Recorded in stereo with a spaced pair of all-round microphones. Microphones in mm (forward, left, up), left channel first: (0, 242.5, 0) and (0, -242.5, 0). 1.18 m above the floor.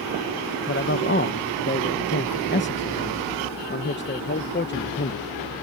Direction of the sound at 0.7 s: 25° left (ahead or behind).